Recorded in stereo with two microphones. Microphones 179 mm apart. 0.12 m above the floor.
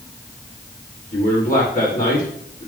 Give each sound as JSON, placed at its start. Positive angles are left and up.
{"t": 1.1, "sound": "a man speaking", "side_deg": 55, "distance_m": 8.0}